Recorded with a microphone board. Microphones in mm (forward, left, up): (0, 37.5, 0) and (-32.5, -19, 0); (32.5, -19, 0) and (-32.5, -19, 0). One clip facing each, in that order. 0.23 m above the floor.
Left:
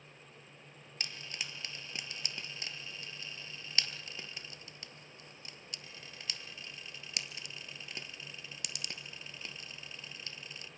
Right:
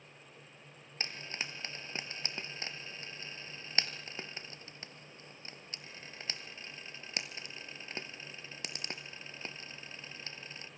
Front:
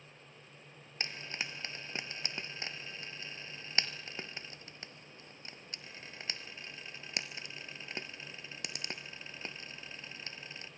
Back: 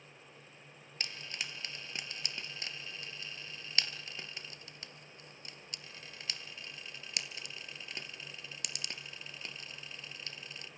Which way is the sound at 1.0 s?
60° right.